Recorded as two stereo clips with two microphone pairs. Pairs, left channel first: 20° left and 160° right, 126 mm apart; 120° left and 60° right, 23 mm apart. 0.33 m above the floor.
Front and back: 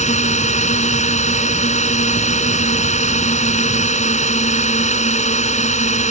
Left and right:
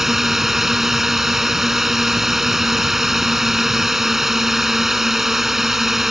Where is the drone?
10° left.